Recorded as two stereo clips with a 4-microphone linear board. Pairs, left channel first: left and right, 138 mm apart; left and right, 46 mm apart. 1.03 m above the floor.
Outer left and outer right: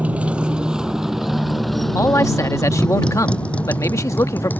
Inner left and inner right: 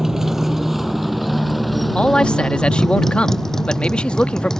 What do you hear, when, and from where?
0.0 s a motorcycle: 10° right (ahead or behind); by 4.6 s 15° left (ahead or behind)
1.9 s a man speaking: 20° left (ahead or behind)